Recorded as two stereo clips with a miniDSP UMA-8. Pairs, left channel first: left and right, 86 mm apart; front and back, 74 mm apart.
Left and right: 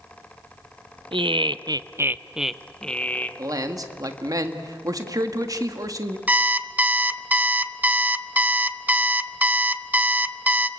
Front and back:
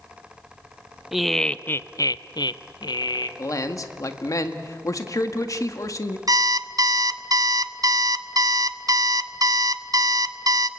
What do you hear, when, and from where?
1.1 s laughter: 95° right, 0.8 m; by 3.3 s 20° left, 1.2 m
3.4 s a man speaking: 45° right, 1.7 m
6.3 s an alarm clock: 160° right, 0.7 m